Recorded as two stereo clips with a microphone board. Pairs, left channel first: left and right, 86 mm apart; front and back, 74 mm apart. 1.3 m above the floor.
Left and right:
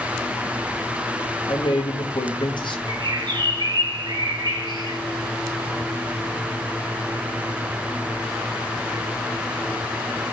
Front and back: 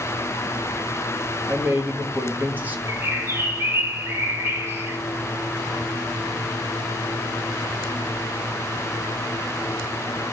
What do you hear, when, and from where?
1.5 s a man speaking: 115° left, 1.8 m
2.9 s a bird: 120° right, 1.6 m